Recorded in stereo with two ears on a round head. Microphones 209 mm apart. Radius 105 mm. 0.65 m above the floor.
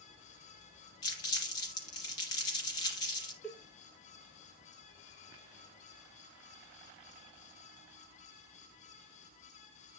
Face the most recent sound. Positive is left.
turn(degrees=5)  # may be behind; listen again after turning